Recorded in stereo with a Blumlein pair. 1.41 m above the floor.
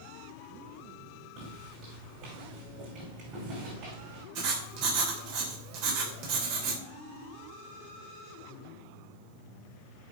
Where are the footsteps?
40° right, 5 m.